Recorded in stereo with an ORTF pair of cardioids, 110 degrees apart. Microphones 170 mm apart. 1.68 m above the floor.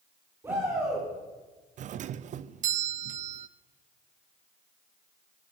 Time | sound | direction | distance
0.4 | a shout | 15° right | 4.5 m
1.8 | a doorbell | 50° right | 0.5 m